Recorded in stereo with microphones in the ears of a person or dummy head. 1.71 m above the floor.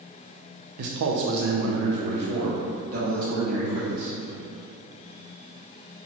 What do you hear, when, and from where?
0.8 s a man speaking: 50° right (ahead or behind), 0.6 m